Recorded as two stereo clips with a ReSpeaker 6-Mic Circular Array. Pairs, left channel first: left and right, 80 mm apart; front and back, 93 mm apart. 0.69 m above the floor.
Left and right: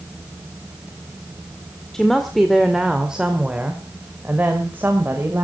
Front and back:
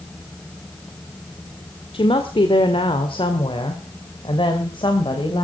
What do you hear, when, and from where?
1.9 s a woman speaking: 5° left, 1.9 m; by 5.4 s 30° right, 3 m